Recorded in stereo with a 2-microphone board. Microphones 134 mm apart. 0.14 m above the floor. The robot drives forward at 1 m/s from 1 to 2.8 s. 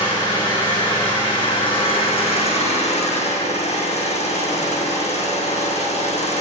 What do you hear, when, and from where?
0.0 s an engine running: 35° left (ahead or behind), 4 m; by 6.4 s 60° left (ahead or behind), 3 m